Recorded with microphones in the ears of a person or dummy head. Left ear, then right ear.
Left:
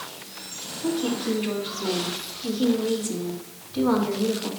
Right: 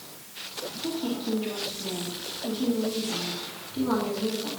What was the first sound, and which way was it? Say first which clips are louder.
A woman speaking: left 6 dB; 25° left (ahead or behind).